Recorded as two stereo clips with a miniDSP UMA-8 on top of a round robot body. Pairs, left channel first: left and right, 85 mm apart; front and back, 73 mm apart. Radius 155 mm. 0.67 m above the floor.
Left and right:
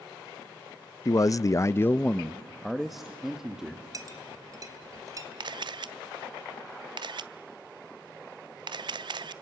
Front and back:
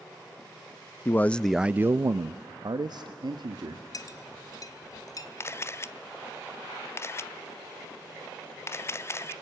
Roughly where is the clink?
Ahead right.